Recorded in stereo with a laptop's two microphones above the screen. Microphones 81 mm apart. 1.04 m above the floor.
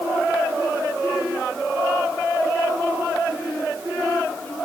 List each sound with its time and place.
Only background noise.